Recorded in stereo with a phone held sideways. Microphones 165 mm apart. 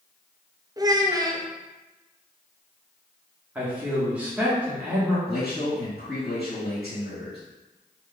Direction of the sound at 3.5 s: 10° right (ahead or behind).